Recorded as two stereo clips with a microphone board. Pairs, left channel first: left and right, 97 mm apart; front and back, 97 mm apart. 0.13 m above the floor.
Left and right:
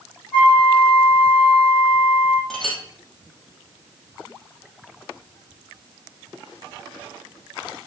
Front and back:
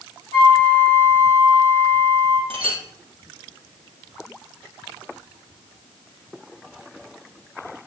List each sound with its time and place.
0.3 s a flute: 170° left, 4.5 m
2.5 s a clink: 175° left, 2.5 m